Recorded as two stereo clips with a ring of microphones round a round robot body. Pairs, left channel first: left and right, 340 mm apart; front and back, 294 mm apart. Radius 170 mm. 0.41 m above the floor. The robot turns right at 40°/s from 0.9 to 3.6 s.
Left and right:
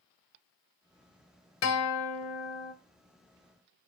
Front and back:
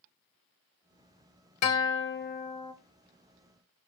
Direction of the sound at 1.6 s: 35° left.